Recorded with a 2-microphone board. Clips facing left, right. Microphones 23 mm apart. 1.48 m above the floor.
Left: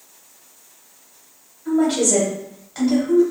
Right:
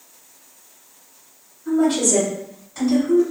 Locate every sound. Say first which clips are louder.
1.6 s a woman speaking: even; 35° left (ahead or behind), 1.9 m